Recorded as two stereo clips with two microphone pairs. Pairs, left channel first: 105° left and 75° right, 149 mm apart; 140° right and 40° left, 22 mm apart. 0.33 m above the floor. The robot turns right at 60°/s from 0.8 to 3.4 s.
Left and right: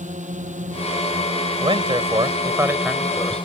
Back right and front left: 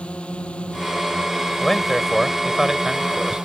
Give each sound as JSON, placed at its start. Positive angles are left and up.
{"t": 0.0, "sound": "a drone", "azimuth_deg": -110}
{"t": 1.6, "sound": "a man speaking", "azimuth_deg": -80}